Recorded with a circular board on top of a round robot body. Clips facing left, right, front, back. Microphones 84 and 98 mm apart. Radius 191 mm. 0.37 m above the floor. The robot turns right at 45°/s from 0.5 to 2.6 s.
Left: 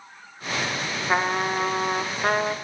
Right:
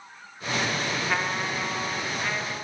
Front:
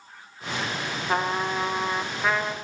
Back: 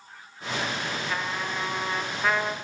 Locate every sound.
1.1 s a trumpet: 35° left, 1.3 m; by 2.5 s 100° left, 1.3 m